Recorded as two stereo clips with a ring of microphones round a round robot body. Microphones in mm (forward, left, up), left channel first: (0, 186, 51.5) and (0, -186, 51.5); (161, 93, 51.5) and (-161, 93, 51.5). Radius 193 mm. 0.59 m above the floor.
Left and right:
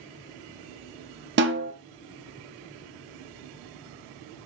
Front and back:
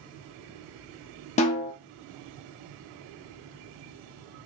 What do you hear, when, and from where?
1.4 s a snare drum: 55° right, 0.7 m